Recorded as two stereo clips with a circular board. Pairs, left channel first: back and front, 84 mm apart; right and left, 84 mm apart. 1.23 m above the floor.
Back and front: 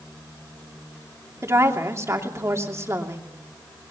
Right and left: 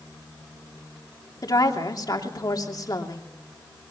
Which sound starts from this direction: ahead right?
A woman speaking, at 1.4 s.